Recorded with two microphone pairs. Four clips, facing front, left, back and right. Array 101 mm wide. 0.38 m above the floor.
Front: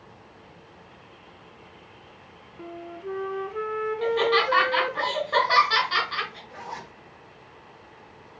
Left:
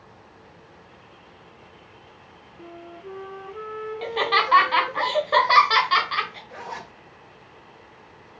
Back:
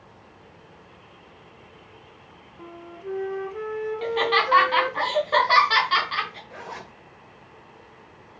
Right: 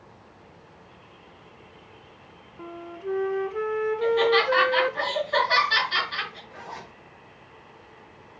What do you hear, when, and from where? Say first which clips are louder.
2.6 s a flute: right 4 dB, front 2 dB; 70° right, 0.9 m
4.0 s laughter: right 2 dB, front 1 dB; 110° left, 3.5 m
6.5 s a zipper: left 4 dB, even; 120° left, 1.8 m